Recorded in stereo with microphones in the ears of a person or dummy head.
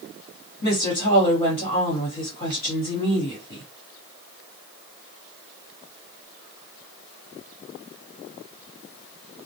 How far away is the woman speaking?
About 1.3 m.